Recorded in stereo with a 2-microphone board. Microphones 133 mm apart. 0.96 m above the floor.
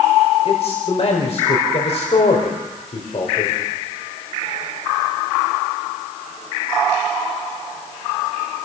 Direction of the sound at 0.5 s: 50° left (ahead or behind).